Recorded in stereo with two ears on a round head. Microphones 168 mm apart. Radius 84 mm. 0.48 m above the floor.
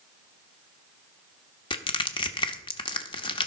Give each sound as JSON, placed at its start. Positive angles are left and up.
{"t": 1.7, "sound": "crushing", "side_deg": 25, "distance_m": 0.8}